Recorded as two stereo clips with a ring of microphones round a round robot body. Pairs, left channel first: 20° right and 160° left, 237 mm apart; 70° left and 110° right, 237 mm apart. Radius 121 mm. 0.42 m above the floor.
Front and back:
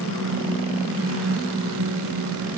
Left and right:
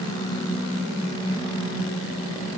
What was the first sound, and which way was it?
Only background noise.